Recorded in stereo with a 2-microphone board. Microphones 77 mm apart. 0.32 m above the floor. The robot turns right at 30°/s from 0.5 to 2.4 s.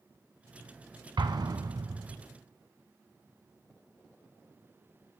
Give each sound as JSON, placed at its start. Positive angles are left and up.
{"t": 1.2, "sound": "an explosion", "side_deg": -70, "distance_m": 0.6}